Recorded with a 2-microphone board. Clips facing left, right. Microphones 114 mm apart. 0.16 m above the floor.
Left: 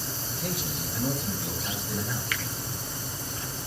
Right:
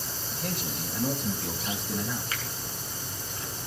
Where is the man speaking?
5° left (ahead or behind), 6 m.